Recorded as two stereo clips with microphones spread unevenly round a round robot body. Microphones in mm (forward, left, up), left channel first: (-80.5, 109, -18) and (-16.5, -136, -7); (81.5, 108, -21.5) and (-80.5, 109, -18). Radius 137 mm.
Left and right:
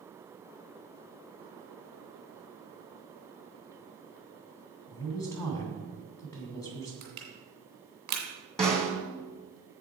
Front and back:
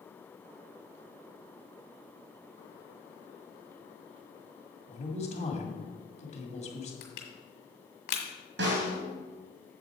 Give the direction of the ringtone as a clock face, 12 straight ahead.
I don't hear a ringtone.